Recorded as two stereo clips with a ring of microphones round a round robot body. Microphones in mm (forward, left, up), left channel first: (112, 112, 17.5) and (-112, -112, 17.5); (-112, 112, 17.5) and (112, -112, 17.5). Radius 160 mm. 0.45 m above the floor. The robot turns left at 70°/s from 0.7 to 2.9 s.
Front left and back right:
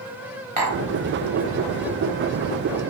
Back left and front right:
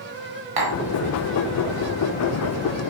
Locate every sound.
0.6 s tapping: 65° right, 0.9 m; by 0.8 s 75° right, 0.9 m